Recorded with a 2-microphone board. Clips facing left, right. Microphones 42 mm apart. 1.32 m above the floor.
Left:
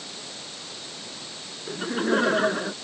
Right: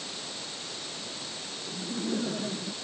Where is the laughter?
85° left.